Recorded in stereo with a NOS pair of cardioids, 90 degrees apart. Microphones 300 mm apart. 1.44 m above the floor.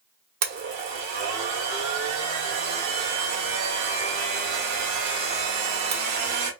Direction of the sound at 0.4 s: 65° right.